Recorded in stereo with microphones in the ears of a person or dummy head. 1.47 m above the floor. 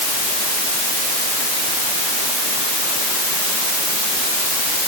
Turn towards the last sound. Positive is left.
No sound to turn to.